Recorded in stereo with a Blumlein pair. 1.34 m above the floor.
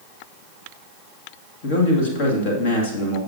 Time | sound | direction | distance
1.6 | a man speaking | 50° left | 2.5 m